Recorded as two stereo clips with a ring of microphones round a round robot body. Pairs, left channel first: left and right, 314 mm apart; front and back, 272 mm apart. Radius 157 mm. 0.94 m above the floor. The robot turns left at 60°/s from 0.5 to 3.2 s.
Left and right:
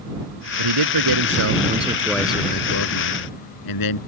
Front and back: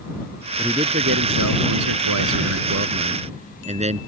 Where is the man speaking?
90° right; by 4.0 s 115° left.